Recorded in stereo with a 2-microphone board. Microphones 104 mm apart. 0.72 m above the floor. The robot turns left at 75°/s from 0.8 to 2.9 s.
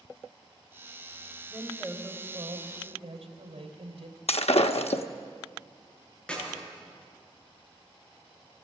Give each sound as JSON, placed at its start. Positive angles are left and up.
{"t": 1.5, "sound": "a woman speaking", "azimuth_deg": 15, "distance_m": 3.0}
{"t": 4.3, "sound": "breaking glass", "side_deg": 80, "distance_m": 0.8}
{"t": 6.3, "sound": "a clap", "side_deg": 10, "distance_m": 8.0}